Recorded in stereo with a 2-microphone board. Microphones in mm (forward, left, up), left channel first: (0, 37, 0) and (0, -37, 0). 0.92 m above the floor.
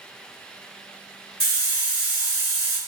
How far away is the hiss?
About 1.6 m.